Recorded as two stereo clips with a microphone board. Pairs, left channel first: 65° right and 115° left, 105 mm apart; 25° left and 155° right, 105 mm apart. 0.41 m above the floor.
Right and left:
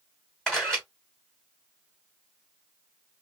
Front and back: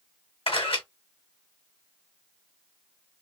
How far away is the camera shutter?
About 3 m.